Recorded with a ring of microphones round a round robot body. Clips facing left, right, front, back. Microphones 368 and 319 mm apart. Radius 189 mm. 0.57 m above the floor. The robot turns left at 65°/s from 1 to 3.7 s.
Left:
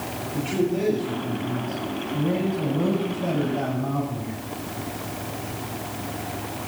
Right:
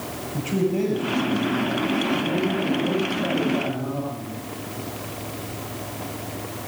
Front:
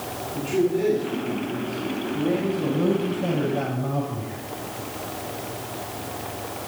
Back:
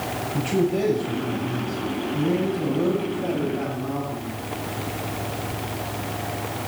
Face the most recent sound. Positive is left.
turn(degrees=20)